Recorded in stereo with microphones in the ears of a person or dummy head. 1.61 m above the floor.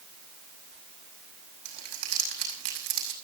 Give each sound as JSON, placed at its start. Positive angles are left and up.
{"t": 1.6, "sound": "crumpling", "side_deg": -55, "distance_m": 5.5}